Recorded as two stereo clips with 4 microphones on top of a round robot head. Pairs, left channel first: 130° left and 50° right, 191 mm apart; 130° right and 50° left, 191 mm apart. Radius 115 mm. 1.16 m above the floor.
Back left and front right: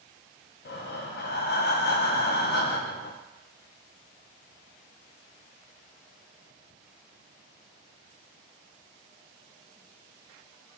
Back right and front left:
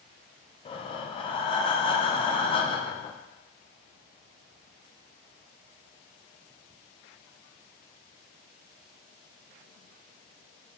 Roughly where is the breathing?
Behind.